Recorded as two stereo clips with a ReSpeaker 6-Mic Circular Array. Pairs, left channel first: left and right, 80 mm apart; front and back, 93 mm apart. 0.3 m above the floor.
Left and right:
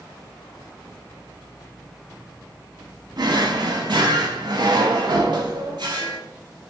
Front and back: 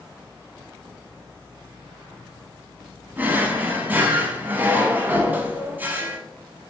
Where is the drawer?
110° right, 0.7 m.